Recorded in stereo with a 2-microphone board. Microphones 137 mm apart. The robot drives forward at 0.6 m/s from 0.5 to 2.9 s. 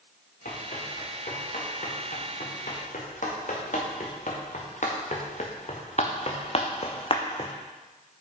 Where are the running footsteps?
85° left, 4.5 m; by 7.5 s 35° left (ahead or behind), 1.2 m.